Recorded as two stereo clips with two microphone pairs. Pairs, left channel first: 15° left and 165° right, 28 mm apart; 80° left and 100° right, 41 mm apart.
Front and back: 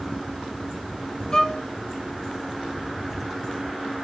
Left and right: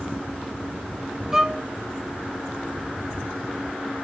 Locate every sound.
1.3 s a violin: 35° right, 0.6 m